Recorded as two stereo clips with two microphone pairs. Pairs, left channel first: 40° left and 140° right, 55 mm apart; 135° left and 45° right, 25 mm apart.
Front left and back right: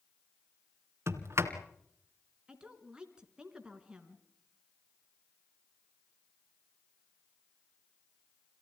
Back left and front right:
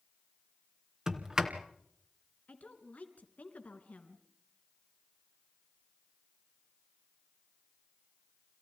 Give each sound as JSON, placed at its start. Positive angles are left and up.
{"t": 1.1, "sound": "a sliding door", "azimuth_deg": -110, "distance_m": 2.5}
{"t": 2.5, "sound": "a woman speaking", "azimuth_deg": 150, "distance_m": 3.5}